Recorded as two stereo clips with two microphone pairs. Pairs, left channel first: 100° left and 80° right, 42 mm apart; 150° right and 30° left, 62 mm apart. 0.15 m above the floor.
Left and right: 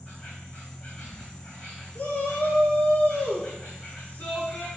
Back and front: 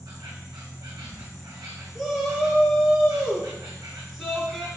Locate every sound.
0.0 s an insect: 40° left, 1.8 m
1.9 s a shout: 120° left, 2.5 m